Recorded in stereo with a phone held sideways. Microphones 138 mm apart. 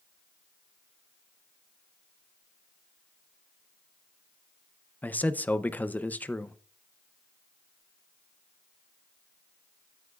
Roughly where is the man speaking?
Centre.